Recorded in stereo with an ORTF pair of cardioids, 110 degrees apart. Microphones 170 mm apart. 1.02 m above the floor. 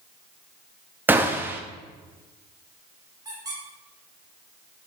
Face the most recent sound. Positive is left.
turn(degrees=-25)